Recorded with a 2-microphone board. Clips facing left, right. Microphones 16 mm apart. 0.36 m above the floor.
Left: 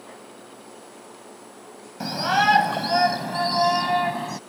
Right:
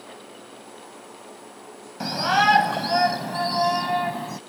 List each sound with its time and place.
2.0 s a shout: centre (ahead or behind); by 4.4 s 25° left (ahead or behind)